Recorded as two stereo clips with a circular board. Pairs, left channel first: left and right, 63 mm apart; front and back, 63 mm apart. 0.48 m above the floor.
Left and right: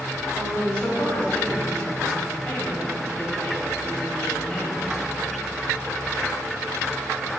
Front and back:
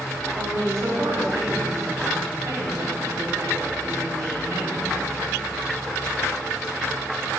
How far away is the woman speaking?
About 2.5 m.